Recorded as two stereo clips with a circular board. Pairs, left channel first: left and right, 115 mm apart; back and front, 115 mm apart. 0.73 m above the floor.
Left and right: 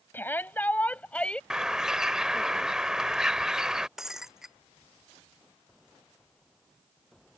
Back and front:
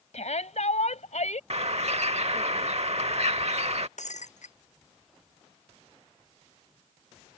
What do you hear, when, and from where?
0.1 s a shout: 165° left; by 1.4 s 170° left
1.5 s a bird: 5° right
4.0 s breaking glass: 175° right